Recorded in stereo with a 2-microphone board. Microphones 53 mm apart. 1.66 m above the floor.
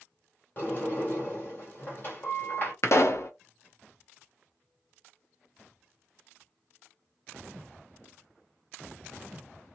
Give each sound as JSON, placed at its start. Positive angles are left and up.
{"t": 0.6, "sound": "a sliding door", "side_deg": 40, "distance_m": 1.7}
{"t": 2.8, "sound": "a pop", "side_deg": 65, "distance_m": 0.6}